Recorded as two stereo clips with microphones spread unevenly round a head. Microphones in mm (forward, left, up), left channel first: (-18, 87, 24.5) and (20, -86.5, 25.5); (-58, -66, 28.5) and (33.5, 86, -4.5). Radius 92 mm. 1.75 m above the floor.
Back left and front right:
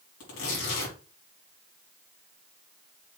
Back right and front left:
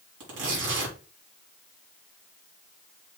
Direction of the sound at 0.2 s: 85° left.